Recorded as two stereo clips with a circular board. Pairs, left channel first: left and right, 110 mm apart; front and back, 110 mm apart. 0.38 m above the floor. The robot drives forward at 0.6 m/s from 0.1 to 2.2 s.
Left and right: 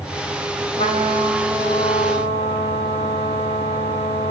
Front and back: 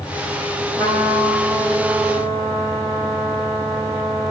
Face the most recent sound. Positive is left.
turn(degrees=110)